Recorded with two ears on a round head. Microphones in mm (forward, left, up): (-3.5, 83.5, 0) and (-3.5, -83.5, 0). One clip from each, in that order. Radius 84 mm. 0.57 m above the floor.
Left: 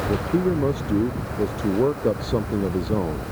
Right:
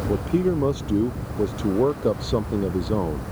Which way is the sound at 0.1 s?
25° right (ahead or behind).